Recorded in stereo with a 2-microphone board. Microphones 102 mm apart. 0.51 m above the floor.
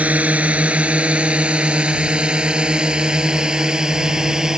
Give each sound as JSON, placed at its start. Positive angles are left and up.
{"t": 0.0, "sound": "a drone", "side_deg": -15}